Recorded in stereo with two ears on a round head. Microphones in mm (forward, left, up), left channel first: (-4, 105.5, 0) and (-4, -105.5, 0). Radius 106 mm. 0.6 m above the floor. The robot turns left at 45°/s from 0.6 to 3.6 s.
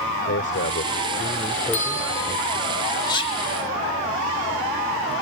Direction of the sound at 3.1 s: 20° left (ahead or behind).